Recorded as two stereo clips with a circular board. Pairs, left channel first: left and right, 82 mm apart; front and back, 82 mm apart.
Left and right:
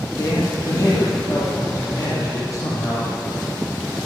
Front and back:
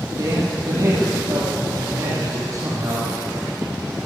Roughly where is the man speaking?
Behind left.